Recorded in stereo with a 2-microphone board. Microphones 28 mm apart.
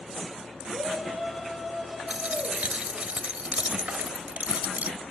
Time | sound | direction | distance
0.7 | a shout | 10° right (ahead or behind) | 10 m
2.1 | a dropped coin | 60° right (ahead or behind) | 1.1 m